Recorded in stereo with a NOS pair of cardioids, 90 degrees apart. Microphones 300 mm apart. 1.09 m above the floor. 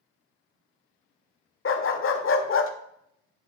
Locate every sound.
1.6 s a dog barking: 45° left, 1.5 m